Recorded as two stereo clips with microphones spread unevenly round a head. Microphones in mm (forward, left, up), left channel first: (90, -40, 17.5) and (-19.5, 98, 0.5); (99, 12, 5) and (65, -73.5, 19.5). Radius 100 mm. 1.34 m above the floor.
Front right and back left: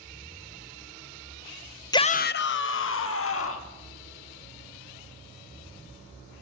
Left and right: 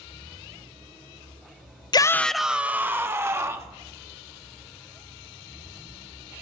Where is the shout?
20° left, 0.6 m; by 3.8 s 55° right, 2.5 m.